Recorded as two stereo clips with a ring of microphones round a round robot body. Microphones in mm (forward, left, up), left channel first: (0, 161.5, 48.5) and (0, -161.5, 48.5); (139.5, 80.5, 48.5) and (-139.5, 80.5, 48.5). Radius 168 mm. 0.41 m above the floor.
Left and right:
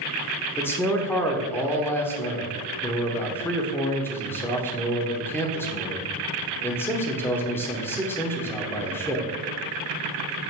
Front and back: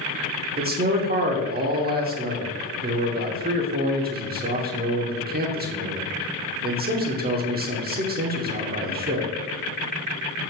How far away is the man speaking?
About 1.1 m.